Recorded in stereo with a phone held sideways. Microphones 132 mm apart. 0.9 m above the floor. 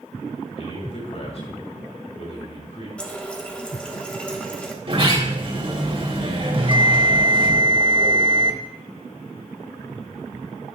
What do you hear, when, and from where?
0.6 s a man speaking: 50° left (ahead or behind), 3.5 m
3.0 s a running tap: 10° left (ahead or behind), 1.4 m
4.8 s a sliding door: 45° right (ahead or behind), 2.5 m
6.5 s a bell: 40° right (ahead or behind), 1.2 m